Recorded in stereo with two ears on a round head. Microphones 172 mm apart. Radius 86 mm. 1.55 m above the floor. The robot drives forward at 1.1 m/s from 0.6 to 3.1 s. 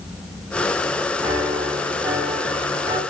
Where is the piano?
20° right (ahead or behind), 7 m; by 3.0 s 25° right (ahead or behind), 5 m.